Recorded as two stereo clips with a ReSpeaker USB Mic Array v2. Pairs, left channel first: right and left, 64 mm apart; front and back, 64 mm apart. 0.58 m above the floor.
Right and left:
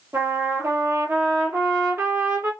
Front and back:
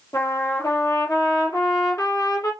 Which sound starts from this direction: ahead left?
A trumpet, at 0.1 s.